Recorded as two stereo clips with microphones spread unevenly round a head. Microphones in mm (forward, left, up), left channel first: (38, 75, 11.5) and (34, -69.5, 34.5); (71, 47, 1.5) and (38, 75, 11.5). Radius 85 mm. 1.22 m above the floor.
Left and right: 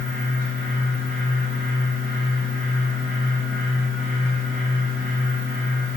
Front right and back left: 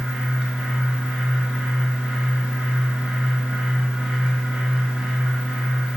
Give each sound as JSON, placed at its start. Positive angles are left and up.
{"t": 0.0, "sound": "a fan", "azimuth_deg": 65, "distance_m": 2.5}